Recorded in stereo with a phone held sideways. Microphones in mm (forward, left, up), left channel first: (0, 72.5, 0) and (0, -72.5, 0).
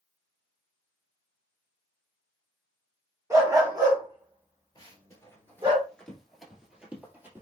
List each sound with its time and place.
3.3 s a dog barking: 20° right (ahead or behind), 1.1 m; by 5.8 s 35° right (ahead or behind), 1.9 m
4.8 s running footsteps: 25° left (ahead or behind), 1.7 m; by 7.4 s 15° right (ahead or behind), 1.9 m